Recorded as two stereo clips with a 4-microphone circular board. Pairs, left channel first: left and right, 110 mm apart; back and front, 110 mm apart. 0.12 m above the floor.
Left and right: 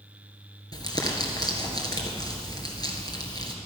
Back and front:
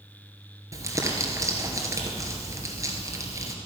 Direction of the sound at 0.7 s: 50° left.